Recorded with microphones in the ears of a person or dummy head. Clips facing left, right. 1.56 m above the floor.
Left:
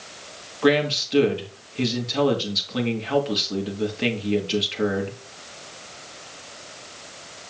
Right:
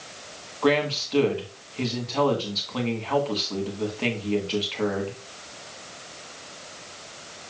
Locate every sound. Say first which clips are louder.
0.6 s a man speaking: left 3 dB; 15° left (ahead or behind), 1.7 m